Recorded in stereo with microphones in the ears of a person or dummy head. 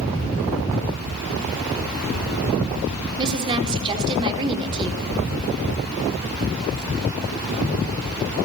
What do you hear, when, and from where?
3.2 s a woman speaking: 30° right (ahead or behind), 4.5 m